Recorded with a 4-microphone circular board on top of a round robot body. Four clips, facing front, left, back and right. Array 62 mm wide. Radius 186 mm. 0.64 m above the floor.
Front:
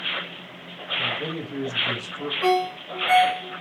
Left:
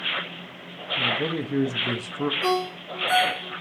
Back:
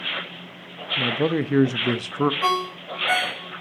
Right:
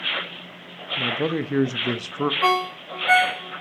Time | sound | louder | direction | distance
1.0 | a man speaking | right 2 dB, back 7 dB | 155° right | 1.0 m
2.4 | a ringtone | right 5 dB, front 1 dB | 100° right | 4.5 m